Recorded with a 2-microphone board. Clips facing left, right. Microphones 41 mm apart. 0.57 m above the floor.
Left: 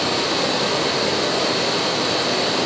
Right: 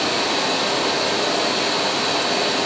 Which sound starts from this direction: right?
Running water, at 0.0 s.